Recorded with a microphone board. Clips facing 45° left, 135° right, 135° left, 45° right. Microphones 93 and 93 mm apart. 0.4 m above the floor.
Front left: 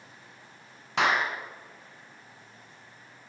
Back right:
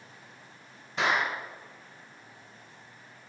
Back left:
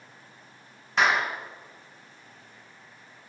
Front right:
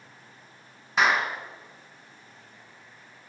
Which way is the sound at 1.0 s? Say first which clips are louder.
Front left 2 dB, even; 40° left.